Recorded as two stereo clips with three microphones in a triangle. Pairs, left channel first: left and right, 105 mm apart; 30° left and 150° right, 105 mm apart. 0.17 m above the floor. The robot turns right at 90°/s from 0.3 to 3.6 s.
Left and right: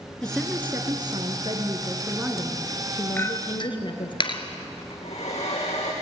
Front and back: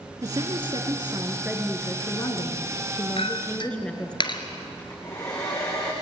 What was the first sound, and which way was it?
A woman speaking, 170° left.